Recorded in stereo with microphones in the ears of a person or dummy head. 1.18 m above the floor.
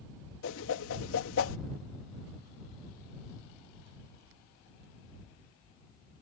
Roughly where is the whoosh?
Left.